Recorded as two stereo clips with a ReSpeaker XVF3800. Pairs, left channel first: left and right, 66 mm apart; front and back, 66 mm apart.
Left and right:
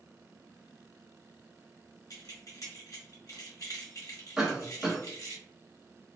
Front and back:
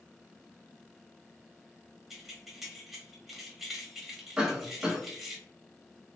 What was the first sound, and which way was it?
Keys jangling, 95° left.